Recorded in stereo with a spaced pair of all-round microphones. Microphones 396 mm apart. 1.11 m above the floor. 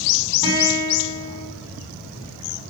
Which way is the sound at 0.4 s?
55° right (ahead or behind).